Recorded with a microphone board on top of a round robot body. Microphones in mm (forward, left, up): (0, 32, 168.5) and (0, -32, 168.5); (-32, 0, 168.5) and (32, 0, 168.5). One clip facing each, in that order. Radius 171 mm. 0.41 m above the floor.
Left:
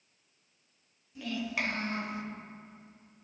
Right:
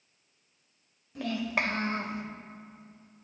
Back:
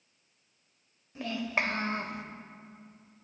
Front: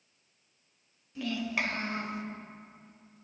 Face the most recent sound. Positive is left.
turn(degrees=-140)